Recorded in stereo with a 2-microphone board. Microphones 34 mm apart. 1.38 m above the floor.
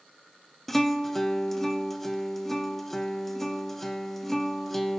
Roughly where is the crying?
No crying in this recording.